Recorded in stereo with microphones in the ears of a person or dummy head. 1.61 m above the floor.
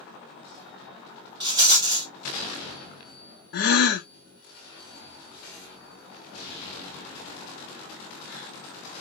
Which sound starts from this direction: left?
A gasp, at 3.5 s.